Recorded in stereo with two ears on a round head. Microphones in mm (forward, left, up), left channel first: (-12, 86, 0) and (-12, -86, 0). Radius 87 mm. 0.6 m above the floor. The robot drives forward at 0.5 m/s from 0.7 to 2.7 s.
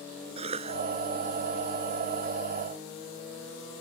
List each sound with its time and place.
0.4 s a cough: 30° right (ahead or behind)